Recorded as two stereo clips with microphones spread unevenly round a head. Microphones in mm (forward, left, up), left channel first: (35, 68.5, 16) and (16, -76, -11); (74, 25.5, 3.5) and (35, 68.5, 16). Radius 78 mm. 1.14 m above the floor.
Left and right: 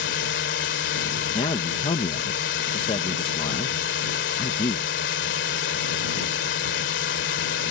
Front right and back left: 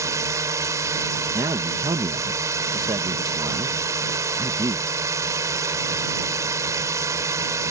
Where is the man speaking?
145° left.